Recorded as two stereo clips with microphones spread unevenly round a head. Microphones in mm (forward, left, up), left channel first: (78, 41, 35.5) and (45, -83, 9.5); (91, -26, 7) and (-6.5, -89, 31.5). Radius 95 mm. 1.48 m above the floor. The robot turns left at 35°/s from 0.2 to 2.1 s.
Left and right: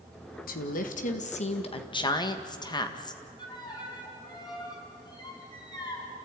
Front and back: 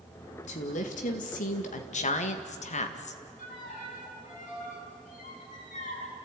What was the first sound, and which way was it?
A woman speaking, 75° left.